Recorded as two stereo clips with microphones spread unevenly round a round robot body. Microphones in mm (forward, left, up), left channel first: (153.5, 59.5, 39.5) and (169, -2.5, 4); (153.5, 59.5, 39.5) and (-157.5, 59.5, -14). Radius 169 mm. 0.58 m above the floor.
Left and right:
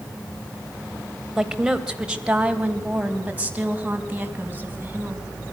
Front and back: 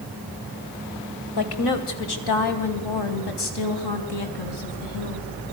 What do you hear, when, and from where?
1.4 s a woman speaking: straight ahead, 2.5 m; by 5.3 s 20° right, 5 m